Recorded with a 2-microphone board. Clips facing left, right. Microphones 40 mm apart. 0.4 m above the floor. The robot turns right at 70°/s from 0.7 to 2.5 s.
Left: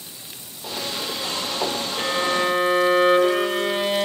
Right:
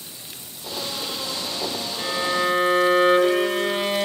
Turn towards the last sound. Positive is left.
turn(degrees=175)